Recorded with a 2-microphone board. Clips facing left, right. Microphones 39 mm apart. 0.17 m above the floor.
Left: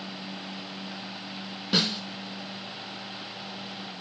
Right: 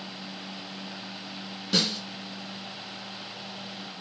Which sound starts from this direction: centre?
A snare drum, at 1.7 s.